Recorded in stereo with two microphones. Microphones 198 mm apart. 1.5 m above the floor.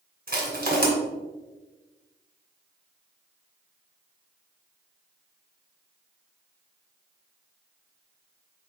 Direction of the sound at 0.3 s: 50° right (ahead or behind).